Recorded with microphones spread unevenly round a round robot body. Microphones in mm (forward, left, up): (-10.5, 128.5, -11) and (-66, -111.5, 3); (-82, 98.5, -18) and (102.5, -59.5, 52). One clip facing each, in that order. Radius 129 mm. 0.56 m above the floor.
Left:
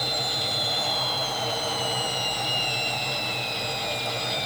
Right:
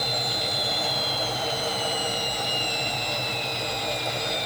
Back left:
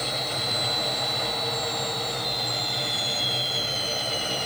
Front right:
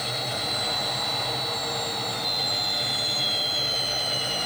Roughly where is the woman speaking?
No woman speaking in this recording.